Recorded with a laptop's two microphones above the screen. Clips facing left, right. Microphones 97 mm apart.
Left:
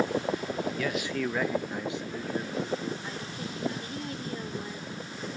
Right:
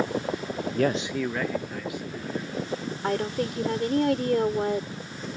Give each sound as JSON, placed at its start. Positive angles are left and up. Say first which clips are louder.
{"t": 0.7, "sound": "a man speaking", "louder": "right 5 dB", "side_deg": -55}
{"t": 3.0, "sound": "a woman speaking", "louder": "right 11 dB", "side_deg": -70}